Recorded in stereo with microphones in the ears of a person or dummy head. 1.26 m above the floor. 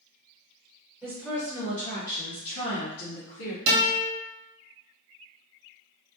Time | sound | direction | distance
1.0 | a woman speaking | 10° right (ahead or behind) | 1.2 m
3.7 | a guitar | 35° right (ahead or behind) | 1.0 m